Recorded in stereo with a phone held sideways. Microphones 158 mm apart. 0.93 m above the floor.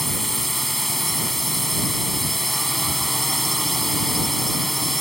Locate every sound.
0.0 s a drone: centre (ahead or behind)